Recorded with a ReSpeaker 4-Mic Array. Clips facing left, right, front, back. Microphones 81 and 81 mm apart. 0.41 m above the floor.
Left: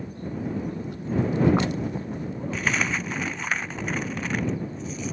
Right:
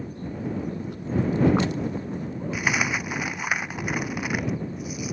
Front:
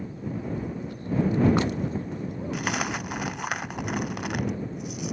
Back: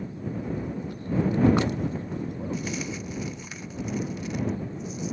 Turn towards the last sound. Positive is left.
turn(degrees=-10)